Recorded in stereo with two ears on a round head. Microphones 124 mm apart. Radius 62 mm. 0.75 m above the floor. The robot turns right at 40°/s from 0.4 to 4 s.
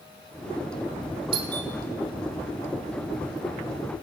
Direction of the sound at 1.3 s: 40° right (ahead or behind).